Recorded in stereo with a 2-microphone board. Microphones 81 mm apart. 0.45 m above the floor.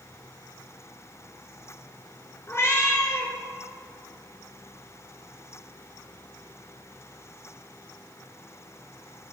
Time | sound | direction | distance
2.5 | a cat meowing | 35° left (ahead or behind) | 2.5 m